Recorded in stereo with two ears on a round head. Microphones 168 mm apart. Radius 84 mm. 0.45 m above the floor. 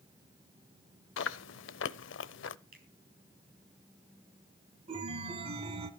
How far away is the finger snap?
About 5 m.